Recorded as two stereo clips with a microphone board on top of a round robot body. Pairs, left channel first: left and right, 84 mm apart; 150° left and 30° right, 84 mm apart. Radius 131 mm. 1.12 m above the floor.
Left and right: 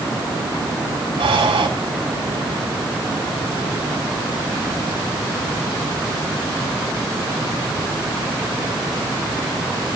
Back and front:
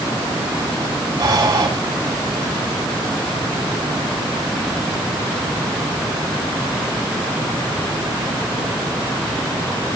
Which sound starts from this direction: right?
Breathing, at 1.2 s.